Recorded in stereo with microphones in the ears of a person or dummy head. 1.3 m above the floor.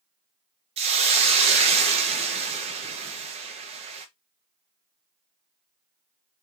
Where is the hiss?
35° right (ahead or behind), 1.0 m.